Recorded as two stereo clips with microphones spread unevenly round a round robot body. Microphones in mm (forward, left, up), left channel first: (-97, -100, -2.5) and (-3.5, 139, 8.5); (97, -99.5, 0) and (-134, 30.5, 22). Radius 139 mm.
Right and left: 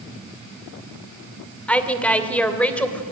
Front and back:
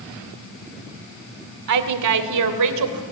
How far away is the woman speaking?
About 2.5 m.